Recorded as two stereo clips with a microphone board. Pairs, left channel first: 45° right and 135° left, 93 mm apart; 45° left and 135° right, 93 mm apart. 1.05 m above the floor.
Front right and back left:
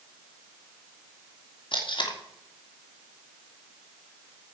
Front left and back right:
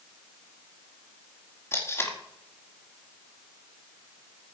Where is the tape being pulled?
20° right, 2.5 m.